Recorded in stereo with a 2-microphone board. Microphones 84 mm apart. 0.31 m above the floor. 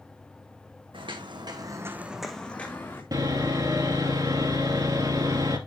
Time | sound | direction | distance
0.9 | footsteps | 80° right | 1.6 m
3.1 | sawing | 50° right (ahead or behind) | 1.5 m